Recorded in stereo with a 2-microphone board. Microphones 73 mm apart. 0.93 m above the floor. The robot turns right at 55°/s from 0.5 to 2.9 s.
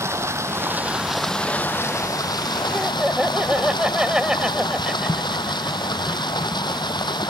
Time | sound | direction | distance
0.0 | running water | 40° right | ?
2.7 | laughter | 20° right (ahead or behind) | ?